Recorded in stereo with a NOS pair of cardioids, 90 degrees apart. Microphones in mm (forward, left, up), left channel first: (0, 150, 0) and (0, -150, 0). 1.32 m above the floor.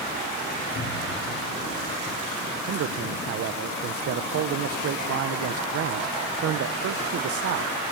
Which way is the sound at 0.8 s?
40° left.